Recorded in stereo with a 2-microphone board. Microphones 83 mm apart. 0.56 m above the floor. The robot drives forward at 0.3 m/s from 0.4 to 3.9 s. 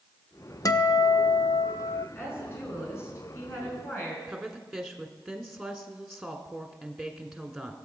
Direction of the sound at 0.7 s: 40° left (ahead or behind).